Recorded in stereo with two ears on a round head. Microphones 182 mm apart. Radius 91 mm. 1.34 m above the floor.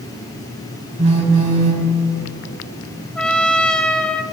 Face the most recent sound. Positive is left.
turn(degrees=5)  # may be behind; listen again after turning